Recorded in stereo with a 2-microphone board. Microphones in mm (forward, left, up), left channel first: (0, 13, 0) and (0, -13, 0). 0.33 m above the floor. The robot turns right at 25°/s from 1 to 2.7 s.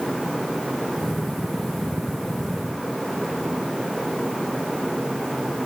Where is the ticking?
I don't hear ticking.